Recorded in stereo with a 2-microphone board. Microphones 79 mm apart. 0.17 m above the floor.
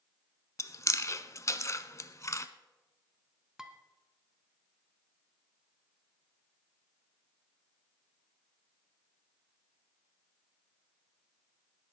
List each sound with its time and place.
0.6 s chewing: 40° left (ahead or behind), 0.7 m
3.6 s dishes clattering: 10° right (ahead or behind), 1.2 m